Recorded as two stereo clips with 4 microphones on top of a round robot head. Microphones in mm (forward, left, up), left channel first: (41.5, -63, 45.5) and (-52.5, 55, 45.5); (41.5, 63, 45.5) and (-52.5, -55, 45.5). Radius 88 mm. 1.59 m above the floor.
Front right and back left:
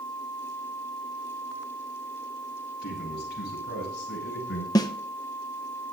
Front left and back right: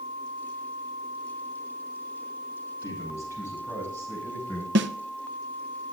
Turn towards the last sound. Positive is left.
turn(degrees=-115)